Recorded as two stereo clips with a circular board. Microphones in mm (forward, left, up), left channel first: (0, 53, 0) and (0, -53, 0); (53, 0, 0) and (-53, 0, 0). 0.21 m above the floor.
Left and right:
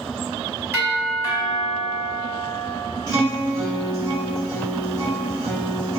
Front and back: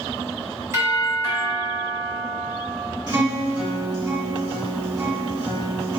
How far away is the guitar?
About 1.6 m.